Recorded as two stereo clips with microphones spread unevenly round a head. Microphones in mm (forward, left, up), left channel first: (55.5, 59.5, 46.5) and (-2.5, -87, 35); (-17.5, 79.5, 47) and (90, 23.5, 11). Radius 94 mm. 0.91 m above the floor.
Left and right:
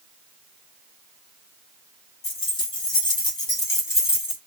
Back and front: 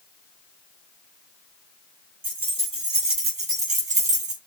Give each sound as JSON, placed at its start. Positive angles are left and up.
{"t": 2.2, "sound": "keys jangling", "azimuth_deg": 15, "distance_m": 3.5}